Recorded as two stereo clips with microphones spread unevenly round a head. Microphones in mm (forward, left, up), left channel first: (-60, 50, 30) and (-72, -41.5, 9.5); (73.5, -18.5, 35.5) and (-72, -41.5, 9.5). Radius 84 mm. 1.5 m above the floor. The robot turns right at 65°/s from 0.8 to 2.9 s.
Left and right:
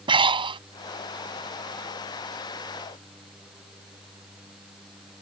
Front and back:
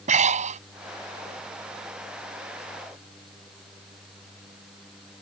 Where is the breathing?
130° right.